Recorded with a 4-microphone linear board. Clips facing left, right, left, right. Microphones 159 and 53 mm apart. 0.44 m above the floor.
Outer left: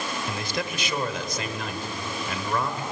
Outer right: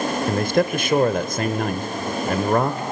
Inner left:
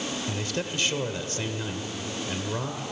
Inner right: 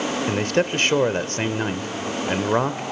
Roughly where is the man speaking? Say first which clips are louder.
Outer right 11 dB, inner right 10 dB; right.